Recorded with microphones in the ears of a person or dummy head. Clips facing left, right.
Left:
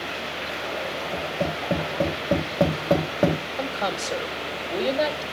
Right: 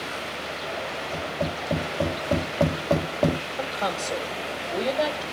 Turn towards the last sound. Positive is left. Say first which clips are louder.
# left 1 dB
turn(degrees=10)  # may be behind; listen again after turning